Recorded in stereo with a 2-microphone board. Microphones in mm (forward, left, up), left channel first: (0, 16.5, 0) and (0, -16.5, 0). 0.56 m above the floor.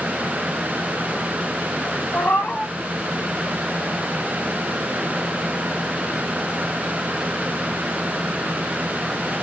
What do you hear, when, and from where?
2.1 s a cat meowing: 70° left (ahead or behind), 1.2 m